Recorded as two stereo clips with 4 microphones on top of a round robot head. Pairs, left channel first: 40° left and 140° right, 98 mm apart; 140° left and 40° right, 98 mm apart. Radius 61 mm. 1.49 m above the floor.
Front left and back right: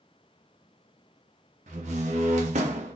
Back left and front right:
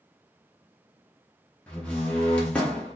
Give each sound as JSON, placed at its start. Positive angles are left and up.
{"t": 1.7, "sound": "a door slam", "azimuth_deg": -140, "distance_m": 0.7}